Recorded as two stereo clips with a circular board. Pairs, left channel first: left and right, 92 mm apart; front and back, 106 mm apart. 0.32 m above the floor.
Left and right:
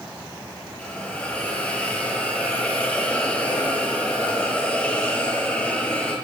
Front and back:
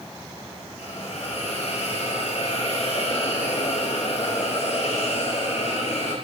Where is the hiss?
15° left, 5 m.